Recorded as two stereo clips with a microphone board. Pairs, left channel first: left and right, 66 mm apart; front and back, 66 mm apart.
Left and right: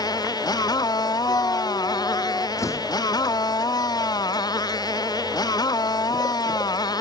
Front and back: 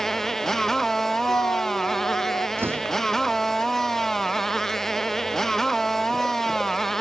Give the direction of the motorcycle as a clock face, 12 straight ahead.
9 o'clock.